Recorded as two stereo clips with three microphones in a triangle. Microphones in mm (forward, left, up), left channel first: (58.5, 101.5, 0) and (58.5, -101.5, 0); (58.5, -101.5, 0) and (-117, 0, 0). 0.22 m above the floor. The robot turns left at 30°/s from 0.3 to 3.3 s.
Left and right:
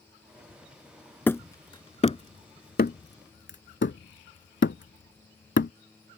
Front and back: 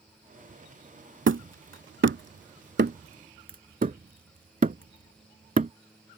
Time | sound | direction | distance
1.3 | hammering | 170° left | ?